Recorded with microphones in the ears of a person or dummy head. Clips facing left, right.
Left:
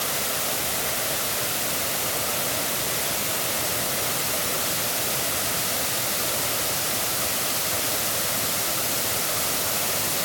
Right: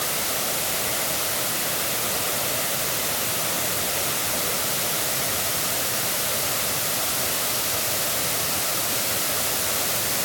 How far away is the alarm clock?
No alarm clock in this recording.